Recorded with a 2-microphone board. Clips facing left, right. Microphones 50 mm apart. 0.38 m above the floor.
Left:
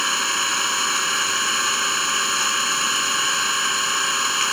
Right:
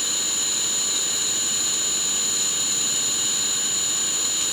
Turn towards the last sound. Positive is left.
turn(degrees=60)  # may be behind; listen again after turning